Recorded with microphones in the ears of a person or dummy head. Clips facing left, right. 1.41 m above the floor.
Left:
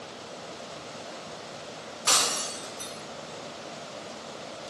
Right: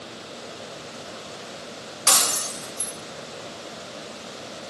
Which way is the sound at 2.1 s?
70° right (ahead or behind).